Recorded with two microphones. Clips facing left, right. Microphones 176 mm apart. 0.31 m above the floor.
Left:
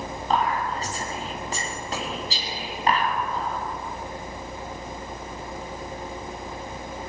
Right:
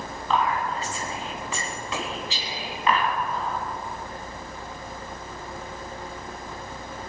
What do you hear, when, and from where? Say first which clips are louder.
0.3 s whispering: even; 40° left (ahead or behind), 3 m